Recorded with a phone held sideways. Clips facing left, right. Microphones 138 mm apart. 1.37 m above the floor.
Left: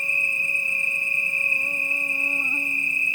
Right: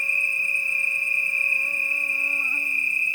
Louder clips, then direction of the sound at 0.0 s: Left 1 dB; 20° left (ahead or behind).